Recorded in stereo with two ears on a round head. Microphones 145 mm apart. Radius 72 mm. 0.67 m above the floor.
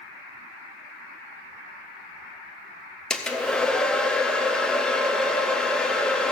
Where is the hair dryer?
5° left (ahead or behind), 0.6 m.